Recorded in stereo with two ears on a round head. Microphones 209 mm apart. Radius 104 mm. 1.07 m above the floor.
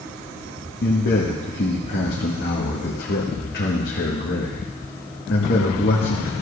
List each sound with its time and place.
0.8 s a man speaking: 40° left (ahead or behind), 1.3 m